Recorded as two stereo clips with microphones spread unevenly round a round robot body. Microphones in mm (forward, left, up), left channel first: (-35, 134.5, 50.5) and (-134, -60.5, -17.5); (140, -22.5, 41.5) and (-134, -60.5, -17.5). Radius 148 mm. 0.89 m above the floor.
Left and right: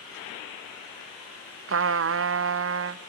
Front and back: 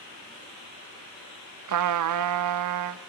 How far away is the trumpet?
About 0.7 m.